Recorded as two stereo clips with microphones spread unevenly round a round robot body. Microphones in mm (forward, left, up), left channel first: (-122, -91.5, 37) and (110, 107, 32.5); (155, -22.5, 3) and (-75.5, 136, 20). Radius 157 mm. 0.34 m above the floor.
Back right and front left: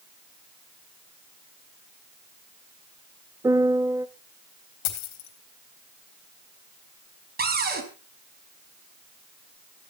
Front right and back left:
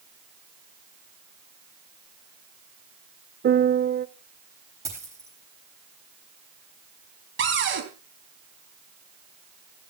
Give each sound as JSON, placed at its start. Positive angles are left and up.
{"t": 3.4, "sound": "a piano", "azimuth_deg": 110, "distance_m": 0.7}
{"t": 4.8, "sound": "a dropped coin", "azimuth_deg": -135, "distance_m": 3.5}
{"t": 7.4, "sound": "a cupboard door", "azimuth_deg": 100, "distance_m": 3.5}